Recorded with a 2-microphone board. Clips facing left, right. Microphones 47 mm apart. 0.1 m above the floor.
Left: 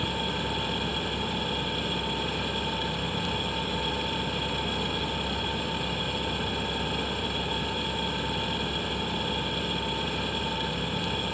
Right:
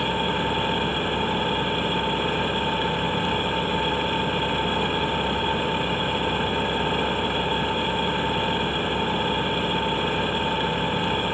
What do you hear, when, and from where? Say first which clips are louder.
0.0 s an engine running: right 6 dB; 35° right (ahead or behind), 1.2 m